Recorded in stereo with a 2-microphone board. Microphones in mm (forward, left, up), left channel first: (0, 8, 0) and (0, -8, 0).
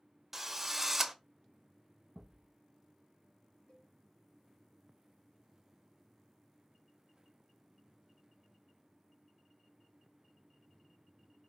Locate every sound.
0.3 s a drill: 20° right (ahead or behind), 0.7 m
2.1 s a thud: 75° left (ahead or behind), 2.5 m
3.7 s a cowbell: 70° left (ahead or behind), 1.8 m